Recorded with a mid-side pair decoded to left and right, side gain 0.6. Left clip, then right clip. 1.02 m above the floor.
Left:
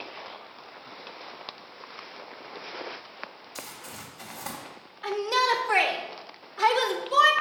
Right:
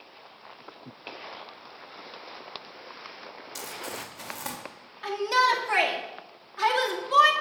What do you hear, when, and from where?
3.5 s crumpling: 45° right, 2 m
5.0 s a shout: 35° right, 1.6 m